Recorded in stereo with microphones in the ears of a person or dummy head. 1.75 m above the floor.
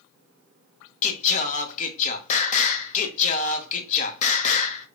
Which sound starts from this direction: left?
Singing, at 1.0 s.